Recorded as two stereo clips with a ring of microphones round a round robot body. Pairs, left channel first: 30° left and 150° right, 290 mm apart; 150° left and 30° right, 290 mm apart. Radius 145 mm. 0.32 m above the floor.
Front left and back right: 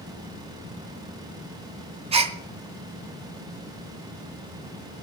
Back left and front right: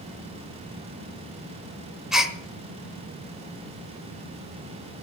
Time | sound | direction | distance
2.1 | a gasp | 115° right | 0.8 m